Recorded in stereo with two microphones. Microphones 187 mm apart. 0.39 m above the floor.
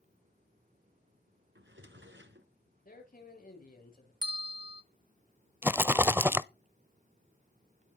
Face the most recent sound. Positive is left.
turn(degrees=-10)  # may be behind; listen again after turning